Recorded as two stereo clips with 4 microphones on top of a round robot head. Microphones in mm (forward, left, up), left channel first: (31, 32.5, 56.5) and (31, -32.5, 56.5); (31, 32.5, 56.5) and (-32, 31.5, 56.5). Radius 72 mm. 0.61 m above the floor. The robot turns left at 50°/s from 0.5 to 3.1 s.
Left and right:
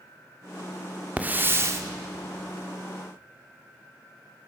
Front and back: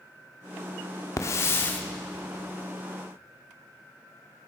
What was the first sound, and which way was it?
A hiss, 25° right.